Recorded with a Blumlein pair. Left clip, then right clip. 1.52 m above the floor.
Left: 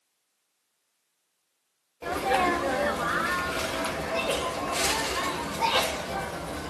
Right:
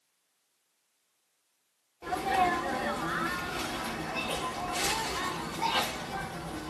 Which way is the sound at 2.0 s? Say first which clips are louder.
Left 3 dB; 65° left.